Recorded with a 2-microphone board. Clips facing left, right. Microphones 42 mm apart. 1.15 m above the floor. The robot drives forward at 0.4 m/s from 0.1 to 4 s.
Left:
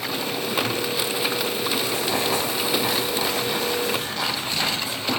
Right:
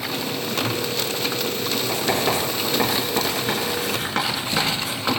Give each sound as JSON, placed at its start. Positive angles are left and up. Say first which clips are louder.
{"t": 1.9, "sound": "writing", "louder": "right 2 dB", "side_deg": -60, "distance_m": 4.5}